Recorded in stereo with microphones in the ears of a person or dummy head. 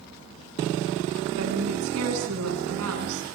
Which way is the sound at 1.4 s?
80° right.